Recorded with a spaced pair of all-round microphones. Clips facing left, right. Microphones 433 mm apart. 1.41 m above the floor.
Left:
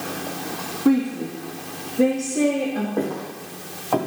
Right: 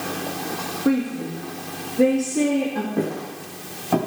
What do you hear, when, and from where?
0.8 s a woman speaking: 15° left (ahead or behind), 2.5 m; by 2.9 s 15° right (ahead or behind), 2.5 m
3.0 s footsteps: 40° right (ahead or behind), 5 m; by 4.0 s 35° right (ahead or behind), 5.5 m